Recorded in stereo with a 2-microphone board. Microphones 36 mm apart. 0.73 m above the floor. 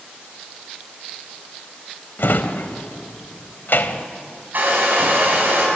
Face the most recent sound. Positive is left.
turn(degrees=-55)  # may be behind; listen again after turning